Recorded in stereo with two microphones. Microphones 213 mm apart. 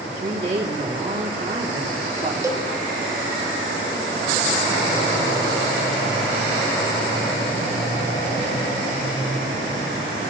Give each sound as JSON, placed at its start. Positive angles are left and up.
{"t": 0.2, "sound": "a woman speaking", "side_deg": -35, "distance_m": 3.5}
{"t": 2.4, "sound": "a cowbell", "side_deg": -15, "distance_m": 1.1}